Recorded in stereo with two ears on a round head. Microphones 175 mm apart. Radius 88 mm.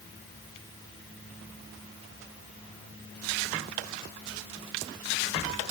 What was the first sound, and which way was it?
Only background noise.